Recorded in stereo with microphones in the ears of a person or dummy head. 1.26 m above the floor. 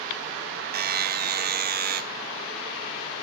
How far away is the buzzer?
About 1.1 m.